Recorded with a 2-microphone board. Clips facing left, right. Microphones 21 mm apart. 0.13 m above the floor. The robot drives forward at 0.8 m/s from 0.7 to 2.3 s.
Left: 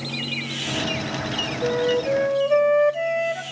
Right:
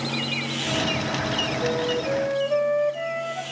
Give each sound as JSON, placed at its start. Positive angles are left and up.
{"t": 1.6, "sound": "a flute", "side_deg": 30, "distance_m": 1.0}